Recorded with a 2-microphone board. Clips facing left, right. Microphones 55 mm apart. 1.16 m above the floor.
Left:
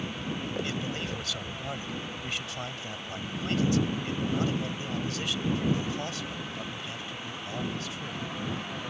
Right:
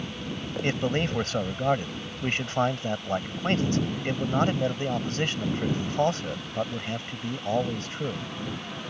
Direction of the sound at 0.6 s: 45° right (ahead or behind).